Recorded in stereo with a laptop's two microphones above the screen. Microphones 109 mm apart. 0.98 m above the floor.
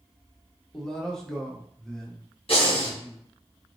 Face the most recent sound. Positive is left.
turn(degrees=60)  # may be behind; listen again after turning